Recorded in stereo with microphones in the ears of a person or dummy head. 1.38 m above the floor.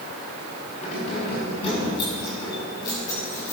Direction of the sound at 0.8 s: 40° left (ahead or behind).